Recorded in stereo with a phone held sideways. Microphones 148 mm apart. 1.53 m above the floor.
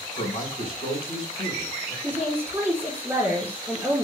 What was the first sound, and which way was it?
A man speaking, 35° left (ahead or behind).